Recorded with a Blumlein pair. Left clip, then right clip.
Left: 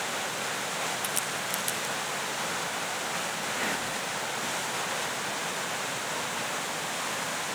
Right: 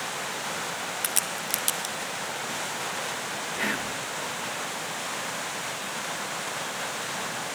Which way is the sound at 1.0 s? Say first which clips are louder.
Right 1 dB; 70° right.